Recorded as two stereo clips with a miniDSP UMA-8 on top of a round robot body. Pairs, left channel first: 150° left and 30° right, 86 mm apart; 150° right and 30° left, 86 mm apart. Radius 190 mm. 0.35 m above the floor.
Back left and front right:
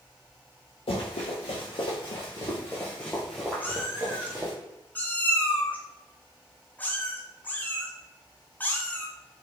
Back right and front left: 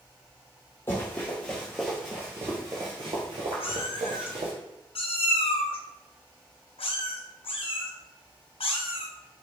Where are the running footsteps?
145° left, 1.1 m; by 4.5 s 35° left, 1.2 m.